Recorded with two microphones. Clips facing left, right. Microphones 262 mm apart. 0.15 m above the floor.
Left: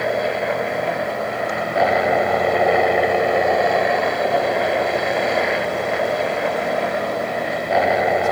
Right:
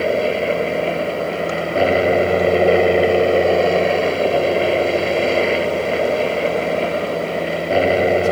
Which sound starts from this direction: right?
A helicopter, at 0.0 s.